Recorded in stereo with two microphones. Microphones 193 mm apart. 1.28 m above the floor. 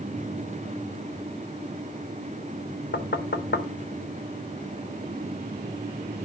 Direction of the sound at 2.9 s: 65° left (ahead or behind).